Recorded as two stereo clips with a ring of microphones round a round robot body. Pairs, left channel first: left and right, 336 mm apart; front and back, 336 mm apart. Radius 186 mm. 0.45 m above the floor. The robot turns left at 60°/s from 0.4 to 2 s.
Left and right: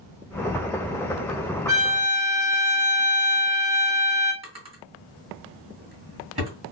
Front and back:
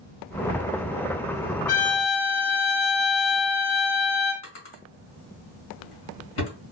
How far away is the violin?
About 1.6 m.